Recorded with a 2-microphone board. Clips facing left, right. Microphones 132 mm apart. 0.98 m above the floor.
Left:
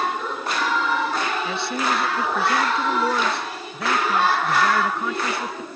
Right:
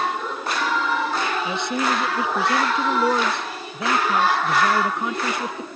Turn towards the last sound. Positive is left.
turn(degrees=-20)  # may be behind; listen again after turning